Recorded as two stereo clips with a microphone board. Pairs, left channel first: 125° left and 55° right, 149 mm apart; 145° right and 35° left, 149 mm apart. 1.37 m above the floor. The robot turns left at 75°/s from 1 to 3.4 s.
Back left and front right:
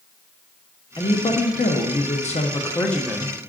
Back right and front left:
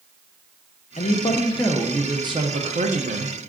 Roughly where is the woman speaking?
Behind.